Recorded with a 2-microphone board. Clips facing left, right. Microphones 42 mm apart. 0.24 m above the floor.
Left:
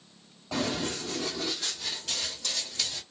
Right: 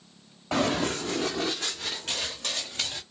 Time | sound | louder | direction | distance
0.5 | running footsteps | right 5 dB | 70° right (ahead or behind) | 0.9 m